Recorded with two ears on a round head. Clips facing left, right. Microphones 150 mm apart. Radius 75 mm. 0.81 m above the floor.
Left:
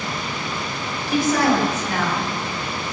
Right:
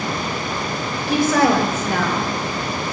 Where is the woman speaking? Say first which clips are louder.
Right 2 dB; 70° right (ahead or behind), 5 m; by 2.9 s 55° right (ahead or behind), 2.5 m.